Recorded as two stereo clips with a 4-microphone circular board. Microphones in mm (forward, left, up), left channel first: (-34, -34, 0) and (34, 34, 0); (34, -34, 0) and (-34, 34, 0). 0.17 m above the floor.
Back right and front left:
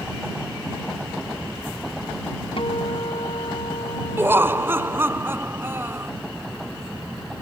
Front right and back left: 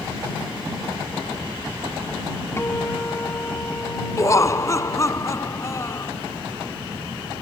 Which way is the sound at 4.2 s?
10° right.